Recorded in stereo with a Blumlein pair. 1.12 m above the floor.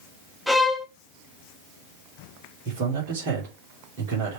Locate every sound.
0.5 s a violin: straight ahead, 1.0 m
2.6 s a man speaking: 45° right, 3 m